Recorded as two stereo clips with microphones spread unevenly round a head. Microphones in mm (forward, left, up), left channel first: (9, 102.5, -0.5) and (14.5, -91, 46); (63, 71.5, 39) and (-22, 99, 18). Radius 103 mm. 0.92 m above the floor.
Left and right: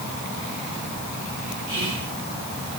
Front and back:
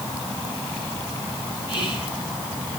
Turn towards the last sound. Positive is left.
turn(degrees=-120)